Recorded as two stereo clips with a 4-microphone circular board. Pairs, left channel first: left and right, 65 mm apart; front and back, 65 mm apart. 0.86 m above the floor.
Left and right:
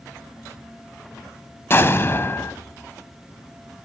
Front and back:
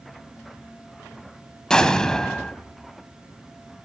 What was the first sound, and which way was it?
An explosion, 70° left.